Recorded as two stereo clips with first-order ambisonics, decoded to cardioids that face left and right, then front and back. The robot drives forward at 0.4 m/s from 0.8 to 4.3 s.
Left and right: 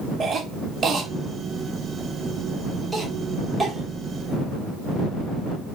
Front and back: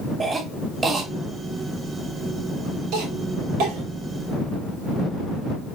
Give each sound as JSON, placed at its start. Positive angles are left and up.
{"t": 0.2, "sound": "a cough", "azimuth_deg": -125, "distance_m": 0.7}